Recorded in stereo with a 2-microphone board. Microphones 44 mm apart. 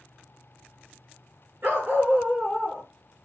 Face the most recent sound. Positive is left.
turn(degrees=-15)  # may be behind; listen again after turning